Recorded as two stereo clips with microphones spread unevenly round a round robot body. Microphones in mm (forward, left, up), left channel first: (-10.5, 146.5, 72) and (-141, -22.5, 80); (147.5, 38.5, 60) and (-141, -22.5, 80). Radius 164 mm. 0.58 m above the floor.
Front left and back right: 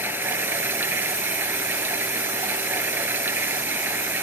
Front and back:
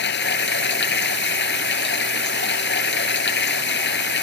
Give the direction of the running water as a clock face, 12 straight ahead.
1 o'clock.